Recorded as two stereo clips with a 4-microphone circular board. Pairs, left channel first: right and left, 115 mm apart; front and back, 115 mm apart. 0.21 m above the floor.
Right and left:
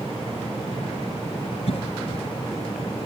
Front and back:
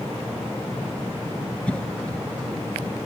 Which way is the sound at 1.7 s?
80° right.